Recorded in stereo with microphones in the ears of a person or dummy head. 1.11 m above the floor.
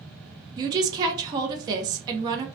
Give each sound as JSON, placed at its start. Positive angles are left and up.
{"t": 0.6, "sound": "a woman speaking", "side_deg": -20, "distance_m": 0.5}